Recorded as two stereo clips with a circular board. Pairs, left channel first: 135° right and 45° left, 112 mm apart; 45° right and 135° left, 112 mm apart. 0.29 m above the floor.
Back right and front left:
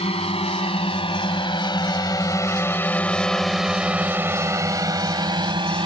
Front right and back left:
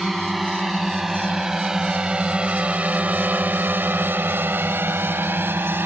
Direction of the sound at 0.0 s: 135° right.